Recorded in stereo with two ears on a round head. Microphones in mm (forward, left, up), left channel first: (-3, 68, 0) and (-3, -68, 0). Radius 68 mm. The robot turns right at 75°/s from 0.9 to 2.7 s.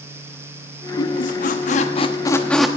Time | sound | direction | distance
1.0 | a squeak | 45° left (ahead or behind) | 1.0 m